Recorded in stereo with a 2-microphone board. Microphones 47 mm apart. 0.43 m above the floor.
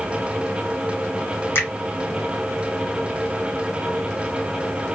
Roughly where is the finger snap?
Left.